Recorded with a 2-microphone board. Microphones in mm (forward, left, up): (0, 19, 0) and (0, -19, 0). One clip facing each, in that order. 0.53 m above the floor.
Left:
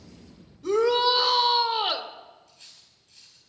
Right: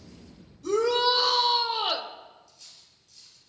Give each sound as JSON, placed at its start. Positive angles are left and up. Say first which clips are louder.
{"t": 0.6, "sound": "a shout", "louder": "left 2 dB", "side_deg": 25, "distance_m": 1.8}
{"t": 2.5, "sound": "cutlery clinking", "louder": "left 1 dB", "side_deg": 55, "distance_m": 6.5}